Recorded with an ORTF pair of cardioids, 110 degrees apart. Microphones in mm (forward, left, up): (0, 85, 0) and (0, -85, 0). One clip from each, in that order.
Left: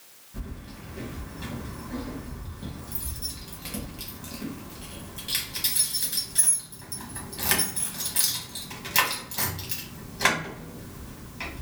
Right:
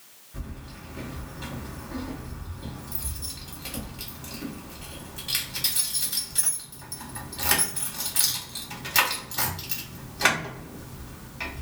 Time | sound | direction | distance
0.3 | keys jangling | straight ahead | 1.3 m